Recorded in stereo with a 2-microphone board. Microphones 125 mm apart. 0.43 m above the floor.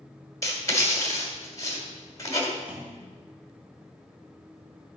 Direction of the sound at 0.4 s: 25° left (ahead or behind).